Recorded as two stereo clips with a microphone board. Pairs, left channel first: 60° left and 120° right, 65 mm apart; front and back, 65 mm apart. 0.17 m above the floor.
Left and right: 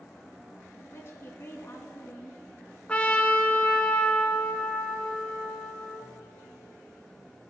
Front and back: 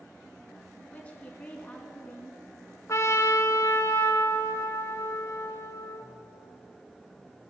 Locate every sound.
0.8 s a woman speaking: 60° left, 1.9 m
2.9 s a trumpet: 5° right, 1.2 m